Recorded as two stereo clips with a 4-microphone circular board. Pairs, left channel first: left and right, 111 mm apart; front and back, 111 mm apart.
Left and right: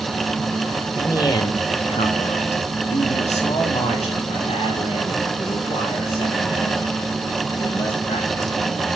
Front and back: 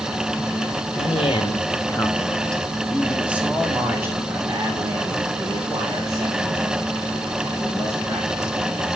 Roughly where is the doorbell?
I don't hear a doorbell.